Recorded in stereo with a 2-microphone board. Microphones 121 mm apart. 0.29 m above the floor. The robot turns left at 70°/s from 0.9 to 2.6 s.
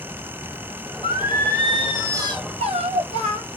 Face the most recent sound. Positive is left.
turn(degrees=-60)